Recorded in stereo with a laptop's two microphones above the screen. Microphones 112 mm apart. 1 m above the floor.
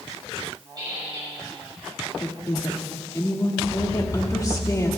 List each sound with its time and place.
0.8 s a squeak: 40° right (ahead or behind), 4 m
2.2 s a woman speaking: 30° left (ahead or behind), 1.8 m